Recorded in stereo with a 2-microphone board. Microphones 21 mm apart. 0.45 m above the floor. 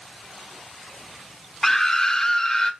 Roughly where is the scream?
Centre.